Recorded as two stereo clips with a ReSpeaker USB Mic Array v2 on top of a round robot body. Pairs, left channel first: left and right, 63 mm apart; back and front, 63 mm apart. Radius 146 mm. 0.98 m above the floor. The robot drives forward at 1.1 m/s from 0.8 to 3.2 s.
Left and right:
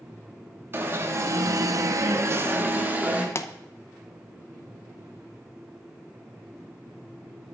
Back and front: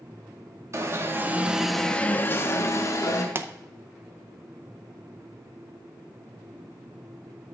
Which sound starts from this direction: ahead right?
An alarm, at 0.7 s.